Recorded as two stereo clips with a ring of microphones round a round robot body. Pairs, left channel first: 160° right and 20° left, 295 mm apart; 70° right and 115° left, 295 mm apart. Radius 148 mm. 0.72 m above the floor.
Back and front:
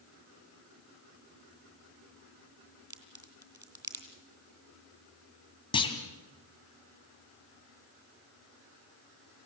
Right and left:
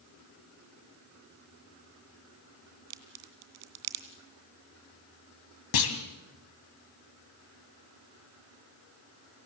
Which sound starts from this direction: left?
A crack, at 2.9 s.